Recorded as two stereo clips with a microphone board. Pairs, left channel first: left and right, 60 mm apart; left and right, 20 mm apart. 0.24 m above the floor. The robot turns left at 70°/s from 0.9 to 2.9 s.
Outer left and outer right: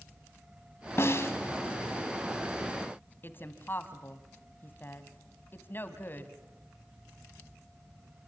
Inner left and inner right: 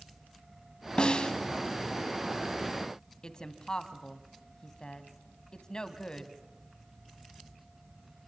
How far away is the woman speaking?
About 2 m.